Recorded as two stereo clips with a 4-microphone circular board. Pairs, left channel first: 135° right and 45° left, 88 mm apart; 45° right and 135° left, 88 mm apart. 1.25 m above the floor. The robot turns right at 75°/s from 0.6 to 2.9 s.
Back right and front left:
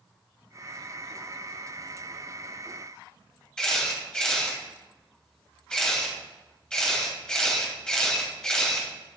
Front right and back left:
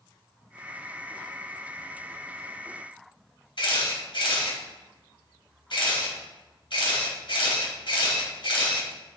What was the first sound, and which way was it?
A camera shutter, 55° right.